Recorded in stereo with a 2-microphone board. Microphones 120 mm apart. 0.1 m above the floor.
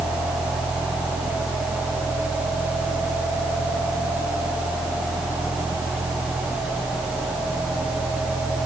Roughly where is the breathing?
I don't hear breathing.